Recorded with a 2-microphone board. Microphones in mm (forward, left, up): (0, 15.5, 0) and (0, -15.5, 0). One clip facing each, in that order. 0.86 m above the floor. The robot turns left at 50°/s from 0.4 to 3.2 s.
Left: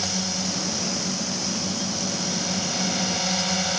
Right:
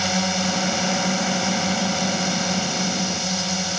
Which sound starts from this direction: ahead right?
A drone, at 0.0 s.